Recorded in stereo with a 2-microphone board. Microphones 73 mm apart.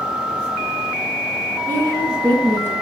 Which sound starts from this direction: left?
A woman speaking, at 1.7 s.